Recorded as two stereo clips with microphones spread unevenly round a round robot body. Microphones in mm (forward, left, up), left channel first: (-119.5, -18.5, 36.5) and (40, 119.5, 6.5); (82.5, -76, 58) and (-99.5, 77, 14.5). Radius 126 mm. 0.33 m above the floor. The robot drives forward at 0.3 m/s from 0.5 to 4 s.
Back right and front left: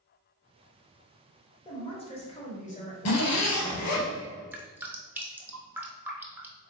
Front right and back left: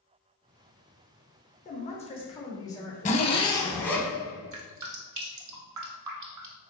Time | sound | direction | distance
1.6 | a man speaking | 80° right | 1.0 m
3.0 | a zipper | 100° right | 0.6 m
4.5 | dripping | 125° left | 1.0 m